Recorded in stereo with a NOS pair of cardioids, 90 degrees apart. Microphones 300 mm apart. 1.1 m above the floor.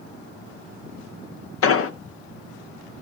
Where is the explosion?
50° left, 0.8 m.